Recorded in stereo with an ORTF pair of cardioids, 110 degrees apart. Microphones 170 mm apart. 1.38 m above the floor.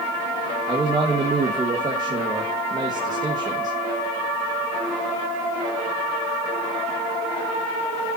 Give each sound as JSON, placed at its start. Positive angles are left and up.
{"t": 0.7, "sound": "a man speaking", "azimuth_deg": -25, "distance_m": 2.0}